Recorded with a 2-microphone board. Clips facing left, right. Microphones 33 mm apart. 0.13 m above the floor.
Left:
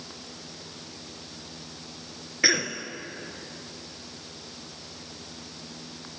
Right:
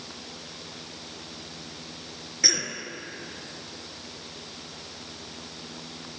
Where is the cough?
30° left (ahead or behind), 1.5 m.